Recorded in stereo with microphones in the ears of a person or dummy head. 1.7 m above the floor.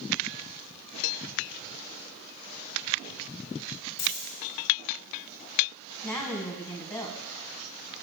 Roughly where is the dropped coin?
Left.